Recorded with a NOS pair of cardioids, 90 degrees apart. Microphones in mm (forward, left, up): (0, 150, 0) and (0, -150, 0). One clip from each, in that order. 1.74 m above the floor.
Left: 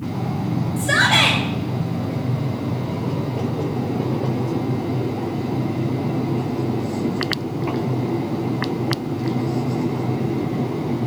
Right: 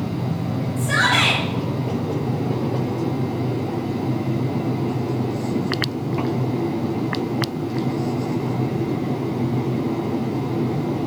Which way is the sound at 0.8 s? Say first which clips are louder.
Left 2 dB; 55° left.